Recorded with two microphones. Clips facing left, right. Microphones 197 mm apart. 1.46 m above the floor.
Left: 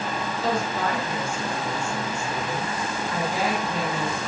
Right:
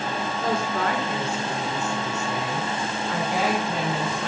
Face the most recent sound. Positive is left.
turn(degrees=-80)